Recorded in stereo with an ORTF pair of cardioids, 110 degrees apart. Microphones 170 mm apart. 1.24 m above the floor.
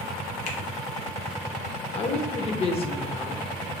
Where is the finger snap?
55° left, 1.0 m.